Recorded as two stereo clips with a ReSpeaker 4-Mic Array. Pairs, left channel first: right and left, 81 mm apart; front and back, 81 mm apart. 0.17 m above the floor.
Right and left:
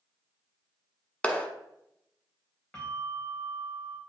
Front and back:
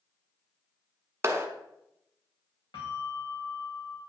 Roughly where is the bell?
Ahead.